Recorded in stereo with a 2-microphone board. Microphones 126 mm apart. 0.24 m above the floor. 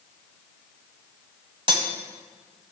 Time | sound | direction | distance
1.7 | cutlery clinking | 40° right (ahead or behind) | 0.8 m